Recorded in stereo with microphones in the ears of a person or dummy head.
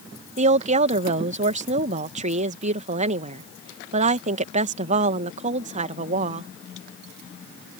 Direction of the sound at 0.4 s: 35° right (ahead or behind).